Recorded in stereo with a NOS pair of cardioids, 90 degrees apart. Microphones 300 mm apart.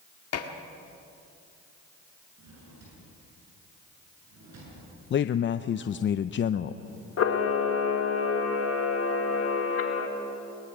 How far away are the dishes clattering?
About 1.9 m.